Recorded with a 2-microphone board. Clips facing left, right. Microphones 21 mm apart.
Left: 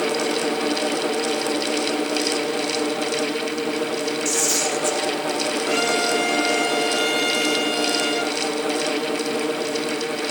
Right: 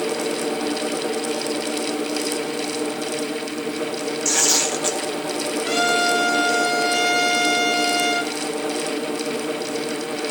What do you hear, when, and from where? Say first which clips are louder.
4.2 s tearing paper: right 4 dB; 40° right (ahead or behind), 1.4 m
5.6 s a trumpet: right 3 dB; 35° right (ahead or behind), 8 m